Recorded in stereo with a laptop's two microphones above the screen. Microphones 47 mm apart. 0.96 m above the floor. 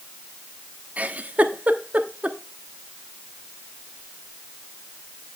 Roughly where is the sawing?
No sawing in this recording.